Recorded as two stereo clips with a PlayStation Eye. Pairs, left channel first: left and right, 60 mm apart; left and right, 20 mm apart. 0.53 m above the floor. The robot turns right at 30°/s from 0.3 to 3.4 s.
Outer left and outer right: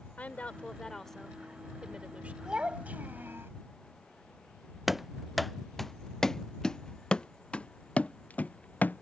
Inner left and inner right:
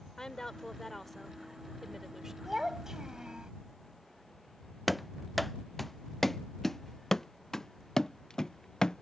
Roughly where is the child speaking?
Centre.